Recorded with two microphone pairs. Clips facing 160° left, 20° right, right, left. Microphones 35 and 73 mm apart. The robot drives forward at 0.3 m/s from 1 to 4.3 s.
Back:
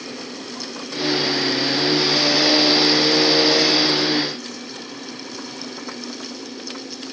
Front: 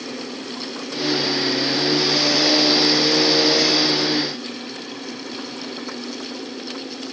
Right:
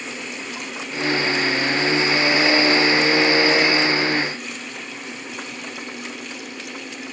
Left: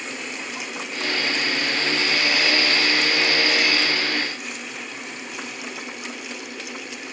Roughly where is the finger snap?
I don't hear a finger snap.